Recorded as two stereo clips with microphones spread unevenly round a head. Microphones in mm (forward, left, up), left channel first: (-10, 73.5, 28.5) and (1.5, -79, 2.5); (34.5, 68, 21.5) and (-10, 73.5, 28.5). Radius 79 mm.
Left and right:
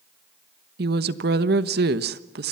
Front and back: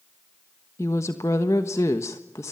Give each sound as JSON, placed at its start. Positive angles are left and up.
{"t": 0.8, "sound": "a woman speaking", "azimuth_deg": -55, "distance_m": 1.2}